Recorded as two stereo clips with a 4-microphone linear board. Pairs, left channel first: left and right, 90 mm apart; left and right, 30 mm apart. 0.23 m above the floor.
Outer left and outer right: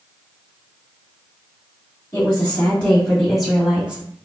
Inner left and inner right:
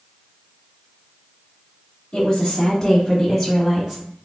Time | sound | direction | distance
2.1 | a woman speaking | 30° left (ahead or behind) | 1.4 m